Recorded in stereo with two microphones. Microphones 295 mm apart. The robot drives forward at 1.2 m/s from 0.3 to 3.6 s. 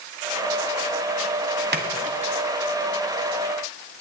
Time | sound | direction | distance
1.7 | a splash | 35° right (ahead or behind) | 1.3 m